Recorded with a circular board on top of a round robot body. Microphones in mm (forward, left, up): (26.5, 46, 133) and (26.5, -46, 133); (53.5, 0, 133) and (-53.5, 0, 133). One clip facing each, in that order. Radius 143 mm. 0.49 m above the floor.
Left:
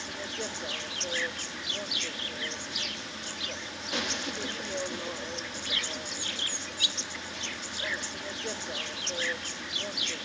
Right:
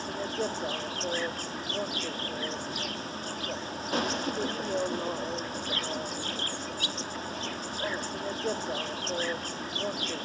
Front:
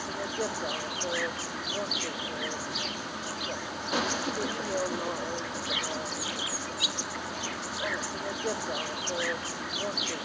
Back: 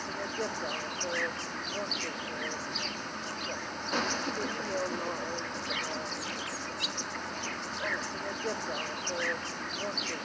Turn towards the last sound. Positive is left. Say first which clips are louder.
# right 6 dB, front 2 dB
turn(degrees=-80)